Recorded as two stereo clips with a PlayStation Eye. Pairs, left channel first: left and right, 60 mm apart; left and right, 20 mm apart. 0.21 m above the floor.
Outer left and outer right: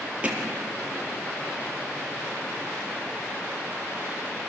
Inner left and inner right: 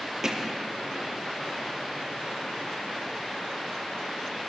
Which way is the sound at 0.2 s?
20° right (ahead or behind).